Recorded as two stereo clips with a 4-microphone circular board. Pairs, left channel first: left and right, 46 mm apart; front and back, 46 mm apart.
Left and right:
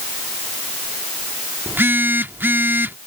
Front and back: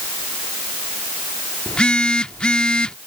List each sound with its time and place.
1.7 s a phone buzzing: 65° right